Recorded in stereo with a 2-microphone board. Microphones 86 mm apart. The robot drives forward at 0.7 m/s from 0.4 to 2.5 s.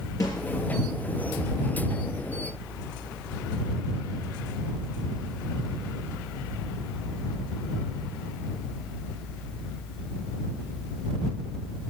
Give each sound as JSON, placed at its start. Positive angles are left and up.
{"t": 0.2, "sound": "a snare drum", "side_deg": 40, "distance_m": 3.5}